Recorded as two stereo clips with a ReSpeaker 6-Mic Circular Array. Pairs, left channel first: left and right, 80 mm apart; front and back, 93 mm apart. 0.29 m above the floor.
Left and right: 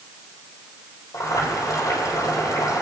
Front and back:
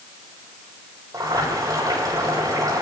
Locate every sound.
1.1 s boiling: 130° left, 6 m